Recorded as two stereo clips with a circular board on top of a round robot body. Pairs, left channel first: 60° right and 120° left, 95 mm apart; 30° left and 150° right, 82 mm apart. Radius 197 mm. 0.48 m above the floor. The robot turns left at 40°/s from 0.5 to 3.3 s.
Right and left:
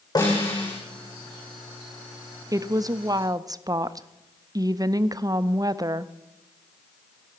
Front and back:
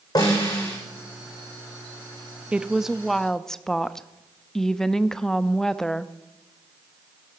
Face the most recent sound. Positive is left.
turn(degrees=110)